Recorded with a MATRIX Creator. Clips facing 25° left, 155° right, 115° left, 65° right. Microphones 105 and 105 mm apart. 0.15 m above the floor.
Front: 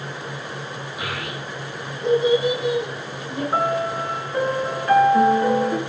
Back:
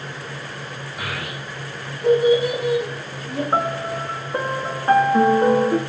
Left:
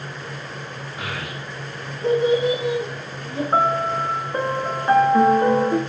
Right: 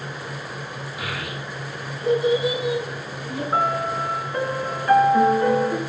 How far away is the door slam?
I don't hear a door slam.